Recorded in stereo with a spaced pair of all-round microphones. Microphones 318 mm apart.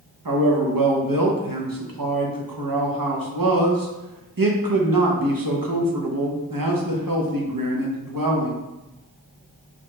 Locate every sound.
0.2 s a man speaking: 75° right (ahead or behind), 0.8 m